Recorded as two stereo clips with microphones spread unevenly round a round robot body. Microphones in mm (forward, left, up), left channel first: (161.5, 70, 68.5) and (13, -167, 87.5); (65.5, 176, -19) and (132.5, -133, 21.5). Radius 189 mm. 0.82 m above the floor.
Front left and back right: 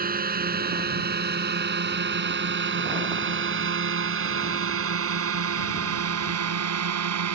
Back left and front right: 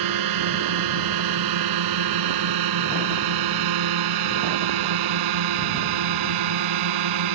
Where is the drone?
65° right; by 7.3 s 100° right.